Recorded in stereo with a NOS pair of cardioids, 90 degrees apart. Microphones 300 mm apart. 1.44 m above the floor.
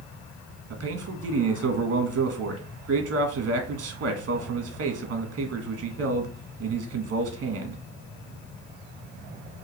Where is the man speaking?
55° right, 1.5 m.